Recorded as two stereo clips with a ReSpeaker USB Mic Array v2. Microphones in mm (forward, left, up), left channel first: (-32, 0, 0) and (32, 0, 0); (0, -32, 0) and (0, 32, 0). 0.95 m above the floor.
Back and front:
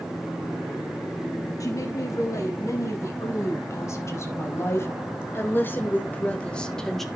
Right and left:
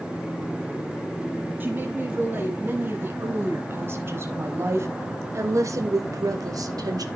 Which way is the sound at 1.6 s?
150° left.